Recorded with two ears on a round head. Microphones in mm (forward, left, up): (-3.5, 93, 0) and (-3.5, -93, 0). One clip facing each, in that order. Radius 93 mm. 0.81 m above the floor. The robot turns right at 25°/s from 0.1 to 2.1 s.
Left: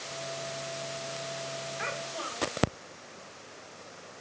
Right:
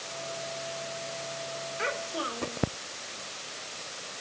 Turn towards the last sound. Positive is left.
turn(degrees=-60)  # may be behind; listen again after turning